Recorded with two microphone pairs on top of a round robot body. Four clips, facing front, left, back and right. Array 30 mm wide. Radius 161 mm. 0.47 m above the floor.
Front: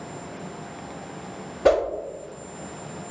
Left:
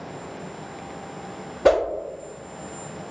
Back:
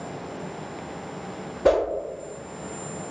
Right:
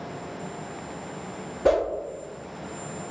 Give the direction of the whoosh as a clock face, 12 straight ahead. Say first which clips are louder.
Left 3 dB, front 1 dB; 10 o'clock.